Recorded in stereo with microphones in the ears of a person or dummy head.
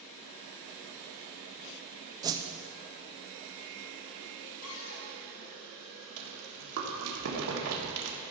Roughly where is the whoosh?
Right.